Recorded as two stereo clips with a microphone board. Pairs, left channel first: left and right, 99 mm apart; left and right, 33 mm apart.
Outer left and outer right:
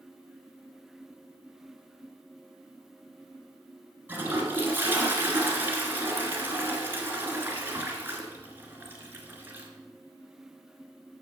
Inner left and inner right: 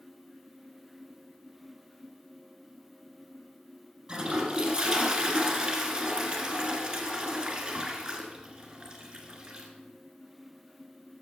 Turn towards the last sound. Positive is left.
turn(degrees=-20)  # may be behind; listen again after turning